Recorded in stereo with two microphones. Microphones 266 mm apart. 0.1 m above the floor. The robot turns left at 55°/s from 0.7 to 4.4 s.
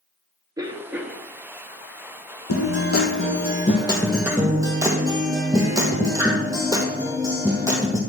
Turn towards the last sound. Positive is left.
turn(degrees=-15)